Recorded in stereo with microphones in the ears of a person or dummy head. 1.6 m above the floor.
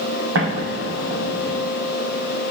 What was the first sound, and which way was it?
An explosion, 80° right.